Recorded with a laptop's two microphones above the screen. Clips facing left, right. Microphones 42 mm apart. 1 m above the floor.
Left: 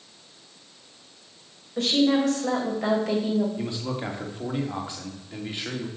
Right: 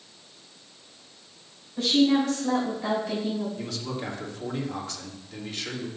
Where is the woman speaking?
75° left (ahead or behind), 4.5 m.